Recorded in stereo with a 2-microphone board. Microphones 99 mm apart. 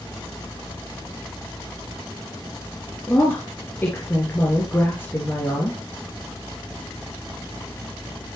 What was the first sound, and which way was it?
A woman speaking, 20° left (ahead or behind).